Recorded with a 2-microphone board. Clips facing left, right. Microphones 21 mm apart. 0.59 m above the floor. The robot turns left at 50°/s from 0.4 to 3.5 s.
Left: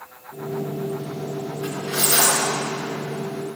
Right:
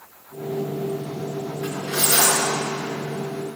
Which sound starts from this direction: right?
Cutlery clinking, at 1.6 s.